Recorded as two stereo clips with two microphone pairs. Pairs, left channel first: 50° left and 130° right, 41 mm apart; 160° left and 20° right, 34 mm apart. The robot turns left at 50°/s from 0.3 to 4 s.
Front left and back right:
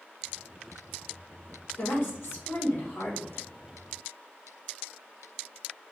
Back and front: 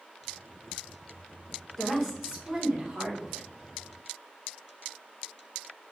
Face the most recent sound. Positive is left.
turn(degrees=-35)